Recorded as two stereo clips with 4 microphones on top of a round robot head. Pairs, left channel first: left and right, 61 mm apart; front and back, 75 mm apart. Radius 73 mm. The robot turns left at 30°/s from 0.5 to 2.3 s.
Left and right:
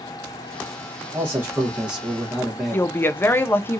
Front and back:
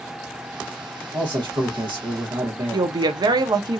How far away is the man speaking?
About 1.1 m.